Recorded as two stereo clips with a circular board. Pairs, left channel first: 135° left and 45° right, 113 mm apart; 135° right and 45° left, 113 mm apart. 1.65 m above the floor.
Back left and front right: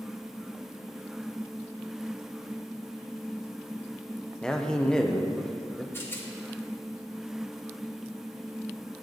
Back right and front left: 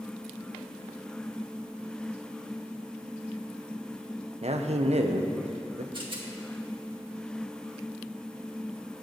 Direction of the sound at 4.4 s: 50° left.